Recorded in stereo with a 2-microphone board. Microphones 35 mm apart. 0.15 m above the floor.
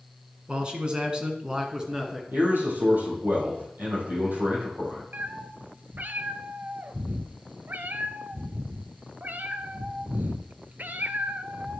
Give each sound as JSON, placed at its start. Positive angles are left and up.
{"t": 0.5, "sound": "a man speaking", "side_deg": -30, "distance_m": 1.3}
{"t": 2.3, "sound": "a man speaking", "side_deg": -75, "distance_m": 4.0}
{"t": 5.1, "sound": "a cat meowing", "side_deg": -70, "distance_m": 0.5}